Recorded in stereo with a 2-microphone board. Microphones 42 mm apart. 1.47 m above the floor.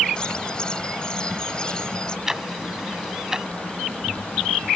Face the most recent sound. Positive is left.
turn(degrees=-15)  # may be behind; listen again after turning